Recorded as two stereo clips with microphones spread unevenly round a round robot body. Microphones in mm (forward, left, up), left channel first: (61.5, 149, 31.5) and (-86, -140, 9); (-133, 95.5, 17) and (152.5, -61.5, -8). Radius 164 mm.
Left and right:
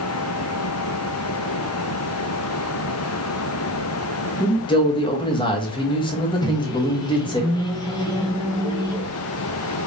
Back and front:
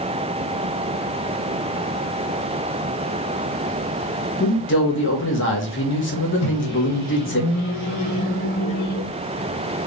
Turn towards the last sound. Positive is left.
turn(degrees=140)